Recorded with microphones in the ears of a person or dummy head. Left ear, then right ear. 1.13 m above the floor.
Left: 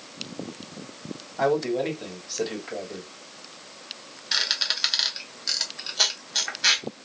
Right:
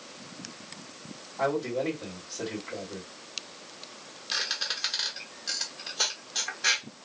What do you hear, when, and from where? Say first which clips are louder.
1.4 s a man speaking: left 5 dB; 55° left (ahead or behind), 1.8 m
4.3 s a squeak: left 6 dB; 25° left (ahead or behind), 1.1 m